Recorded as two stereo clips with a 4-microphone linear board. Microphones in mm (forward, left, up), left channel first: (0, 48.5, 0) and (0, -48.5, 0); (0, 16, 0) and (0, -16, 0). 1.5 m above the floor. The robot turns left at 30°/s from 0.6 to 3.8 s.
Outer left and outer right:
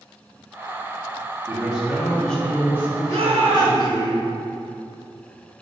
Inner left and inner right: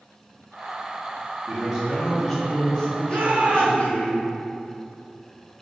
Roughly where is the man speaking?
Behind.